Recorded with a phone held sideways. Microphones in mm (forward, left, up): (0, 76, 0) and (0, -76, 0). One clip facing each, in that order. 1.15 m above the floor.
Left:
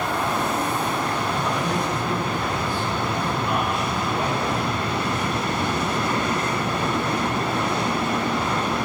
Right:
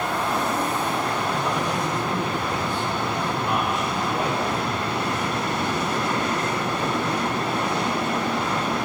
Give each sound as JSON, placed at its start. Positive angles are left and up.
{"t": 1.3, "sound": "a man speaking", "side_deg": -25, "distance_m": 4.5}